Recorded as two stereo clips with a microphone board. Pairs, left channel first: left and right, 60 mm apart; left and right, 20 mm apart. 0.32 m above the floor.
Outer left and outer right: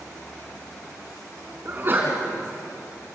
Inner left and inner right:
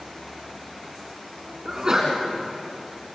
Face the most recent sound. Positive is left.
turn(degrees=-35)  # may be behind; listen again after turning